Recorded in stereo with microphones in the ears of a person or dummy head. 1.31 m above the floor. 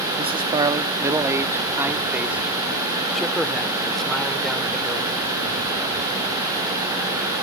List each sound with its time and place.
0.2 s a man speaking: 20° right (ahead or behind); by 5.1 s 10° left (ahead or behind)